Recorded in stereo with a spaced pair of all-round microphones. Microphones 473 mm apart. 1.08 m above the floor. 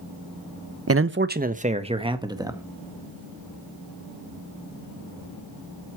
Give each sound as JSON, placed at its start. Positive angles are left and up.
{"t": 0.9, "sound": "a man speaking", "side_deg": -30, "distance_m": 0.6}